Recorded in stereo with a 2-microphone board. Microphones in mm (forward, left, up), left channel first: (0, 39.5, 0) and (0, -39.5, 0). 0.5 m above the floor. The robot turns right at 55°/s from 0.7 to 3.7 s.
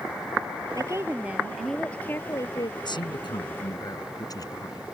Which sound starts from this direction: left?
A man speaking, at 2.8 s.